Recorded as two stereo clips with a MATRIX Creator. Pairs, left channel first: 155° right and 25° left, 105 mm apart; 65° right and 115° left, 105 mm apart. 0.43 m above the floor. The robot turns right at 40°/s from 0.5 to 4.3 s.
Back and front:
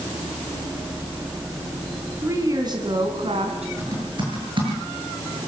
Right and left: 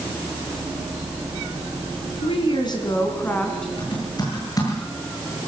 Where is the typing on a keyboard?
35° right, 8.5 m; by 5.5 s 15° right, 8.5 m.